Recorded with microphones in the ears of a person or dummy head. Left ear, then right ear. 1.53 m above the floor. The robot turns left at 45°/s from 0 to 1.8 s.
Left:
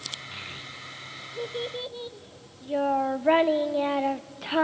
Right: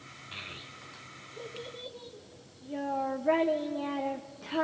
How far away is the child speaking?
About 0.8 m.